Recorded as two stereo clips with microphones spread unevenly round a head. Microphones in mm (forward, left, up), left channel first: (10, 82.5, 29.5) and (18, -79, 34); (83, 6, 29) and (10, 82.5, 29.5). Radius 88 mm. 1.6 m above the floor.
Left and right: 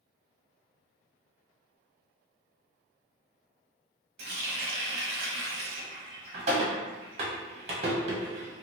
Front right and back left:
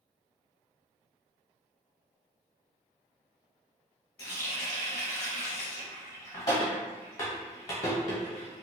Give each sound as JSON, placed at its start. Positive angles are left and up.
{"t": 4.2, "sound": "a running tap", "azimuth_deg": -90, "distance_m": 0.8}